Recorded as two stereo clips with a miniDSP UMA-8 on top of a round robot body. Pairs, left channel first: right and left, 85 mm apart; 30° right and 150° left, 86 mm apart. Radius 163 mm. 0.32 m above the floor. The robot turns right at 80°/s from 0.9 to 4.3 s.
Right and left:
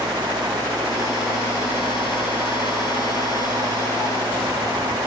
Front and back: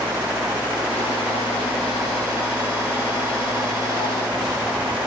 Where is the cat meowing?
I don't hear a cat meowing.